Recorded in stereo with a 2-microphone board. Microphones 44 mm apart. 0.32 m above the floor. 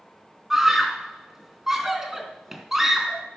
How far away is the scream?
About 3 m.